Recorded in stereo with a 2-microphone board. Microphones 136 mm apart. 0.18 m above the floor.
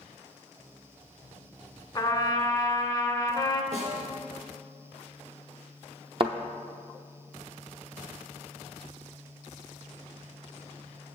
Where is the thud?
45° right (ahead or behind), 0.6 m.